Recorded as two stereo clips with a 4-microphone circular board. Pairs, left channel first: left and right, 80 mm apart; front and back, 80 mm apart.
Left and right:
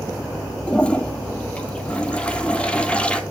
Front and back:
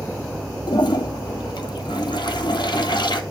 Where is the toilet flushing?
15° left, 0.6 m.